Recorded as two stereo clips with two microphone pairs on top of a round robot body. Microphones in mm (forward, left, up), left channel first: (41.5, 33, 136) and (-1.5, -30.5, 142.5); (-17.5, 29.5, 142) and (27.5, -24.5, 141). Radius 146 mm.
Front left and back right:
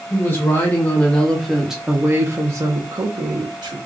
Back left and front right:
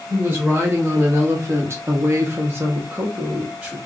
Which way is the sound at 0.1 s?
5° left.